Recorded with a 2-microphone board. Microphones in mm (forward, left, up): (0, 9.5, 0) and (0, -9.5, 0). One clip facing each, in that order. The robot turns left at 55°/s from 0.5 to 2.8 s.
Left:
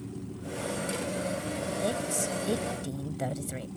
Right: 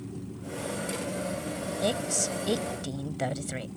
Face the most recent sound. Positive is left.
turn(degrees=-130)